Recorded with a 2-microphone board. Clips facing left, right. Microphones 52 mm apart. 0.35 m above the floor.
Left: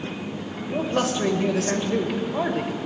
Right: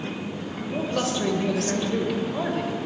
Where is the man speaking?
25° left (ahead or behind), 1.7 m.